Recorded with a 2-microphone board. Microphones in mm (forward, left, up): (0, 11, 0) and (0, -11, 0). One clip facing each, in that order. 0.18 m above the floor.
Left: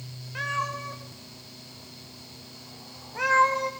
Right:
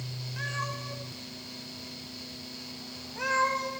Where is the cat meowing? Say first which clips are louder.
Left 6 dB; 75° left (ahead or behind), 7.5 m; by 3.7 s 55° left (ahead or behind), 6.5 m.